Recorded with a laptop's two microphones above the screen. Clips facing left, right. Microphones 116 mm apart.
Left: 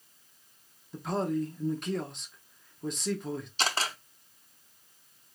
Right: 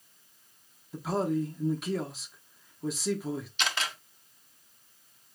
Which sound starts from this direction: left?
A camera shutter, at 3.6 s.